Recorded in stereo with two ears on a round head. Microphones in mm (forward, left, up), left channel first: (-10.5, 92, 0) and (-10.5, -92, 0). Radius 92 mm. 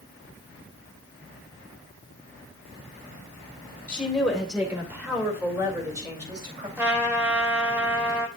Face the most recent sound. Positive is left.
turn(degrees=-10)  # may be behind; listen again after turning